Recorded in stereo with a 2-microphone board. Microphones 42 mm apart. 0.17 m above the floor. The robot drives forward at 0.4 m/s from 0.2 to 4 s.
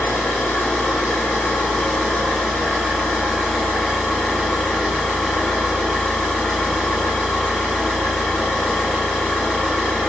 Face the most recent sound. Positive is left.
turn(degrees=35)  # may be behind; listen again after turning